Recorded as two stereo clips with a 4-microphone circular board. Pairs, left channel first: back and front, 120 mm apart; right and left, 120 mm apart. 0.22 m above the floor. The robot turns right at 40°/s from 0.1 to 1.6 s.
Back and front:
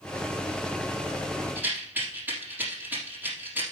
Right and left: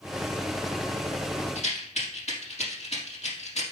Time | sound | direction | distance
1.6 | a rattle | 75° right | 3.5 m